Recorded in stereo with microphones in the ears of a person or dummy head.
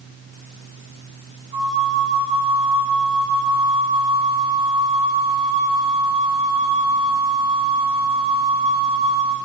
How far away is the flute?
About 3 m.